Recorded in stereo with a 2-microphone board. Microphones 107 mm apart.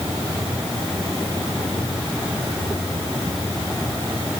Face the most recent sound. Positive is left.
No sound to turn to.